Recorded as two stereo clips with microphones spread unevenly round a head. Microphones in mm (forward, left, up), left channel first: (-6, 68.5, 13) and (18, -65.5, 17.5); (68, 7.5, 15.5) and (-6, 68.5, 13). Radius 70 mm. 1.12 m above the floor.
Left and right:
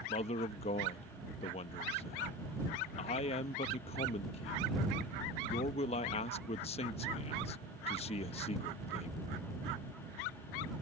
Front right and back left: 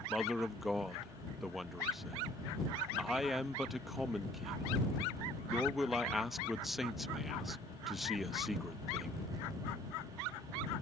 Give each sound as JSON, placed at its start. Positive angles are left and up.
{"t": 0.1, "sound": "a man speaking", "azimuth_deg": 50}